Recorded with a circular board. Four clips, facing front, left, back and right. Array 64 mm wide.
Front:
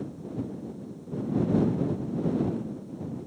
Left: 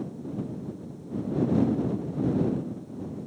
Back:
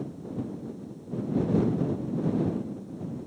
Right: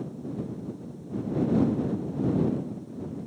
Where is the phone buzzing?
I don't hear a phone buzzing.